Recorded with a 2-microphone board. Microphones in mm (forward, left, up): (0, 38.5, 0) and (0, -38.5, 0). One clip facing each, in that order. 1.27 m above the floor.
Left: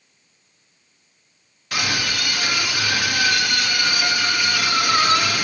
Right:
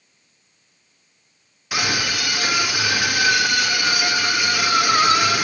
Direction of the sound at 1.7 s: 10° right (ahead or behind).